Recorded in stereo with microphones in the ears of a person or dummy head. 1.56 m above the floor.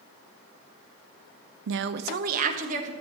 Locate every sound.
1.7 s a woman speaking: 65° right (ahead or behind), 0.5 m; by 2.9 s 35° right (ahead or behind), 1.9 m